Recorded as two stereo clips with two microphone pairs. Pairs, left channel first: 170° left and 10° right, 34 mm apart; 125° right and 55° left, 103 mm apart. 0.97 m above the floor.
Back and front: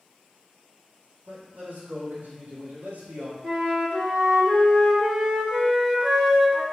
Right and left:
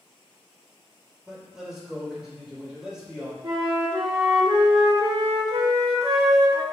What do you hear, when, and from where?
1.3 s a man speaking: 25° right, 3.5 m
3.4 s a flute: 30° left, 1.6 m